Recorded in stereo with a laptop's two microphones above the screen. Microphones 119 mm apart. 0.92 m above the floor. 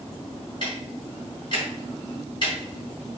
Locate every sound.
0.6 s ticking: 40° left (ahead or behind), 3 m